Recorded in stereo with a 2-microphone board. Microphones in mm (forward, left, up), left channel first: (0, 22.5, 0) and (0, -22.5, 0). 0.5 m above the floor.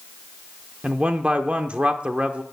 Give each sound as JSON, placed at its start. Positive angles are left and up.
{"t": 0.8, "sound": "a man speaking", "side_deg": -25, "distance_m": 0.9}